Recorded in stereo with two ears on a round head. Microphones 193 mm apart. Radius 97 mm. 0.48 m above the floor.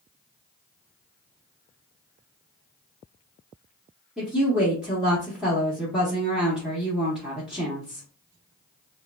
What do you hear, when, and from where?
4.2 s a woman speaking: 5° right (ahead or behind), 0.8 m